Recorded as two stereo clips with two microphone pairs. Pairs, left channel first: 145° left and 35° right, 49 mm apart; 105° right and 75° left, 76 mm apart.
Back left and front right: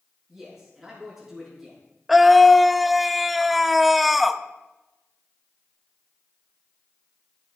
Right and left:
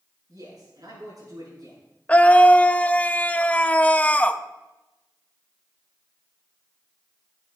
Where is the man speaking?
45° left, 6 m.